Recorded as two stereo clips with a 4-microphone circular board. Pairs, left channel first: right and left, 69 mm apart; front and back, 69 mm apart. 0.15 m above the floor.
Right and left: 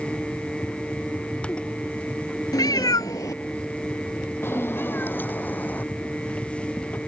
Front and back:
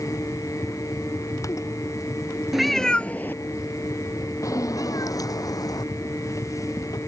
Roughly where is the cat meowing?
Right.